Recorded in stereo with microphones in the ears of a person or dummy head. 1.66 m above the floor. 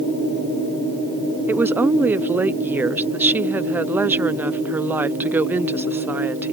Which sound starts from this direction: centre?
A woman speaking, at 1.5 s.